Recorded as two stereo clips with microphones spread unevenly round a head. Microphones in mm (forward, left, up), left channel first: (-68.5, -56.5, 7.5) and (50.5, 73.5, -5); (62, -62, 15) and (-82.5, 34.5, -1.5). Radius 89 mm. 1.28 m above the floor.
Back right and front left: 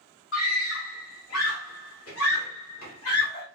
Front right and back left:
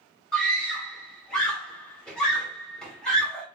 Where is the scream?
120° right, 1.6 m.